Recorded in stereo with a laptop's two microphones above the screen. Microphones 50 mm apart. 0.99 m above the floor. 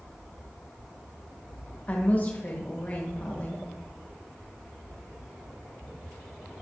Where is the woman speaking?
35° left (ahead or behind), 1.1 m.